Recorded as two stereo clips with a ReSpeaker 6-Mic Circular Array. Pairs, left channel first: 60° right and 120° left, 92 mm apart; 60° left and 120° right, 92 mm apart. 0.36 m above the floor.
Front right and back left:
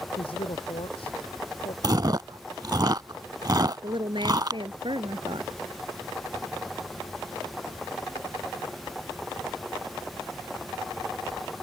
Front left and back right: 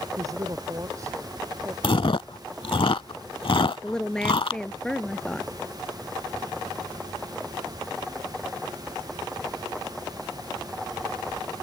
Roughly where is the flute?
No flute in this recording.